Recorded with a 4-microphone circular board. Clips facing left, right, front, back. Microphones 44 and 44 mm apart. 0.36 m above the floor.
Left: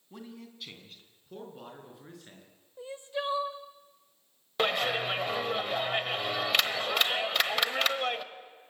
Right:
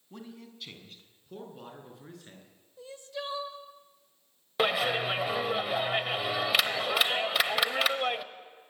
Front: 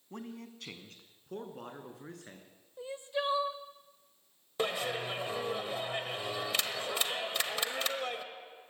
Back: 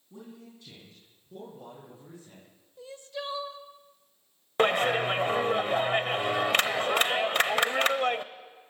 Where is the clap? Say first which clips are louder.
Right 1 dB, back 10 dB; 175° right, 1.0 m.